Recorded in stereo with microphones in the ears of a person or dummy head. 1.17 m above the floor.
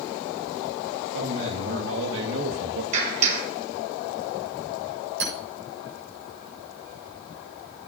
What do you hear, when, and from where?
1.1 s a man speaking: 75° right (ahead or behind), 1.8 m; by 2.8 s 55° right (ahead or behind), 1.1 m
2.9 s a clap: 45° right (ahead or behind), 5 m
5.2 s hammering: 70° right (ahead or behind), 8 m